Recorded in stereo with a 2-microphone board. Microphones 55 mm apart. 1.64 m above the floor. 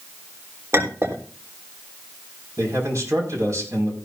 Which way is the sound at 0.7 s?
50° right (ahead or behind).